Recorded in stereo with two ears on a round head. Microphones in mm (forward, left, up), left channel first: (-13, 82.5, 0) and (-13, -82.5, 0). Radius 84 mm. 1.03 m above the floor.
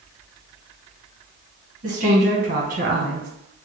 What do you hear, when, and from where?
1.8 s a woman speaking: 40° right (ahead or behind), 1.6 m; by 3.3 s 50° right (ahead or behind), 1.1 m